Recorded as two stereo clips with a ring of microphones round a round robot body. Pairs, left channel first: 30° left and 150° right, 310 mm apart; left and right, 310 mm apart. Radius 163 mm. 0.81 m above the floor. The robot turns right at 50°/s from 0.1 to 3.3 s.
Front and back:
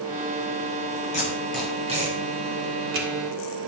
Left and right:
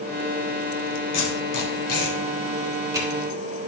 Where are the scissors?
I don't hear scissors.